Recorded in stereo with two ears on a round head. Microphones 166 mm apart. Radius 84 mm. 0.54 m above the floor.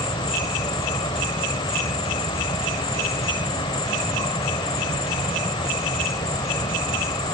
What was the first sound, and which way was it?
An insect, 25° left (ahead or behind).